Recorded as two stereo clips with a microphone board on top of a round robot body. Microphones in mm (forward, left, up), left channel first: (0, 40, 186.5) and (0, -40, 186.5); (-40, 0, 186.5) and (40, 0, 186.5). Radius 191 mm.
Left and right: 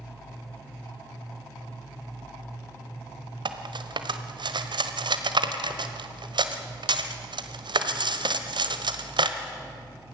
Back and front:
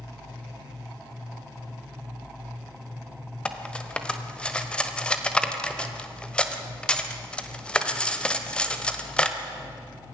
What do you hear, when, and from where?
3.5 s cutlery clinking: 100° right, 1.4 m